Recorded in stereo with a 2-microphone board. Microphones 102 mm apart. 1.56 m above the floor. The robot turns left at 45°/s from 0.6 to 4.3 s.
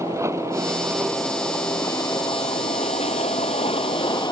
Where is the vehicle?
150° right; by 4.3 s 40° left.